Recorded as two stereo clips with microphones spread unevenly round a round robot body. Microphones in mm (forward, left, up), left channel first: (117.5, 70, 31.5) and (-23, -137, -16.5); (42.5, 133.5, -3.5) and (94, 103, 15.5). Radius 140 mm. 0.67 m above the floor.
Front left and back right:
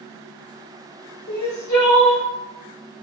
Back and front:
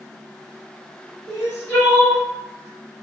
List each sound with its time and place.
1.3 s crying: 40° left, 1.8 m